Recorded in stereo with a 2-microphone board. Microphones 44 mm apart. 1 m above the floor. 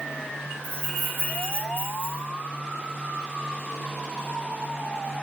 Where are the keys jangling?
60° right (ahead or behind), 1.1 m.